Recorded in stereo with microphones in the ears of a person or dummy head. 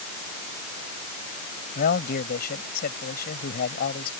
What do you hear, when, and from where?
1.8 s a man speaking: 45° left (ahead or behind)